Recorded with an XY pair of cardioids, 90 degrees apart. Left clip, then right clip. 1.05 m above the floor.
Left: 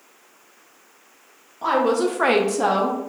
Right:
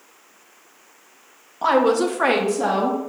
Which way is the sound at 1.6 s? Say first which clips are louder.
Right 2 dB; 45° right.